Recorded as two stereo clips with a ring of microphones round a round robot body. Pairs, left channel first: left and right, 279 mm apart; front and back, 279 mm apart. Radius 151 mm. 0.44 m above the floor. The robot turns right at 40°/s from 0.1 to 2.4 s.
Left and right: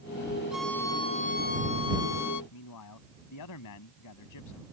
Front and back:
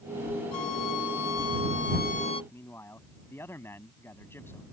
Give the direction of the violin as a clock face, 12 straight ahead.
12 o'clock.